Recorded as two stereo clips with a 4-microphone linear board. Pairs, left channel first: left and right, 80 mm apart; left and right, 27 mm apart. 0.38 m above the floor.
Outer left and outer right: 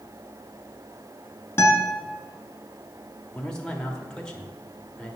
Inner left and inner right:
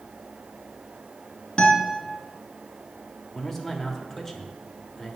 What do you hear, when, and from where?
1.6 s a guitar: 30° left (ahead or behind), 1.8 m
3.3 s a man speaking: 10° left (ahead or behind), 1.3 m